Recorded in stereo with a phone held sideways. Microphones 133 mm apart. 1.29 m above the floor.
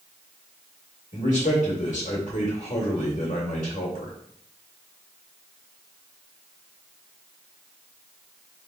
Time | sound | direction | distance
1.1 | a man speaking | 85° left | 1.7 m